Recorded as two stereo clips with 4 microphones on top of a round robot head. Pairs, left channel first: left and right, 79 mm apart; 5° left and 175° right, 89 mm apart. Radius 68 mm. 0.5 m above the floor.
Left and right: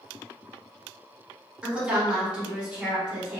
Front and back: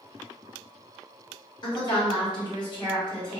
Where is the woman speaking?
15° right, 1.6 m.